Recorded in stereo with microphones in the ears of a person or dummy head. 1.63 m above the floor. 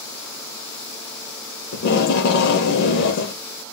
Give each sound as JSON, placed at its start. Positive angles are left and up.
{"t": 1.7, "sound": "tape being pulled", "side_deg": 70, "distance_m": 0.6}